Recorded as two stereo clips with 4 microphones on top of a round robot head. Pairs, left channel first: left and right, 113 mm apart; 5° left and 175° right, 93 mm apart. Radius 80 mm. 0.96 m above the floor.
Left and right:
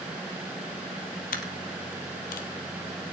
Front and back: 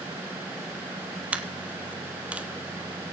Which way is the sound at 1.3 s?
110° left.